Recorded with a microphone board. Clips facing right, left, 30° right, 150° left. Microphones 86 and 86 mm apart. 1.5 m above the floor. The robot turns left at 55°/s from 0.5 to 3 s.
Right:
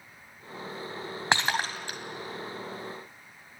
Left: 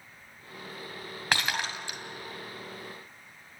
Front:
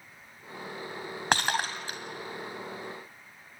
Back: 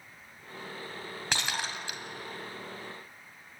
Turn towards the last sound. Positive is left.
turn(degrees=-125)